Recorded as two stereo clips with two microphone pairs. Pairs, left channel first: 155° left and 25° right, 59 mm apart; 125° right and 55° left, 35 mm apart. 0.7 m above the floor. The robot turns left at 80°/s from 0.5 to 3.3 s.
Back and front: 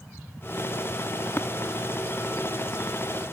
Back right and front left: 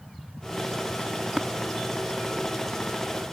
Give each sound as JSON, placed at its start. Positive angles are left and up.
{"t": 1.4, "sound": "tapping", "azimuth_deg": 120}